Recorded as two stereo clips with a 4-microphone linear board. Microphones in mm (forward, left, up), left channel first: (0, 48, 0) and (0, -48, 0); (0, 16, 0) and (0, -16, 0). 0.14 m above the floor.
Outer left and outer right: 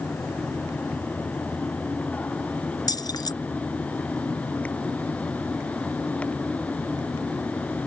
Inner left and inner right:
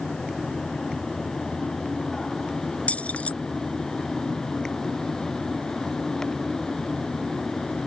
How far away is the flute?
I don't hear a flute.